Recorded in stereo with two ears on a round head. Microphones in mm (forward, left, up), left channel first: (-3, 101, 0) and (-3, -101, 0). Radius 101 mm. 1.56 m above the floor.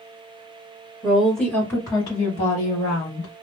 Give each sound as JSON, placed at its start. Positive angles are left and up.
{"t": 1.0, "sound": "a woman speaking", "side_deg": 0, "distance_m": 1.4}